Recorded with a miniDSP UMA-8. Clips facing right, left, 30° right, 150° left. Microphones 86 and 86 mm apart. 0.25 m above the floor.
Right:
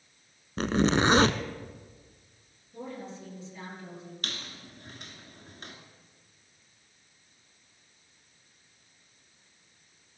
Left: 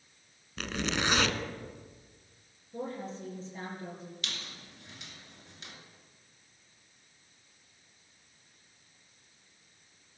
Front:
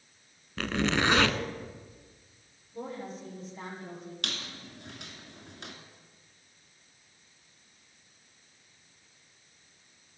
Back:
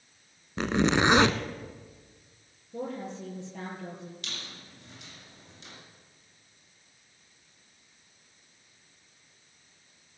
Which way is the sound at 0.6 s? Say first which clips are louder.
Right 9 dB, back 4 dB; 140° right.